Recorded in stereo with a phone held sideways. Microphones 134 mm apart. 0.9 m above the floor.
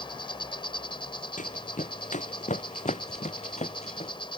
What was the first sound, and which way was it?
An insect, 35° left (ahead or behind).